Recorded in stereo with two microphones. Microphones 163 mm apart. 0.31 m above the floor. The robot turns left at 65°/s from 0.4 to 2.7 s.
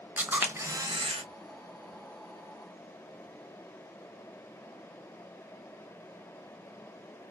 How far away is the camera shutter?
About 0.6 m.